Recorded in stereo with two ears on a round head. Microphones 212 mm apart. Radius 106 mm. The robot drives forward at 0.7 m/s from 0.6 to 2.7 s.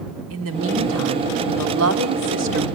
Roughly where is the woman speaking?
Right.